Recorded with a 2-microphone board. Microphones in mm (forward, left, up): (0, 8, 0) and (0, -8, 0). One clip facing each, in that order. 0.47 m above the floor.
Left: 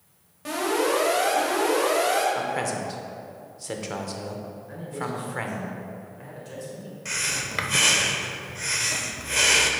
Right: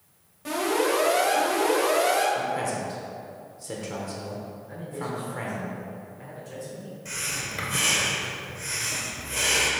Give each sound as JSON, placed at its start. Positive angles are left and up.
{"t": 0.5, "sound": "an alarm", "side_deg": 20, "distance_m": 2.5}
{"t": 2.4, "sound": "a man speaking", "side_deg": 25, "distance_m": 1.0}
{"t": 4.7, "sound": "a man speaking", "side_deg": 20, "distance_m": 2.0}
{"t": 7.0, "sound": "breathing", "side_deg": 35, "distance_m": 0.7}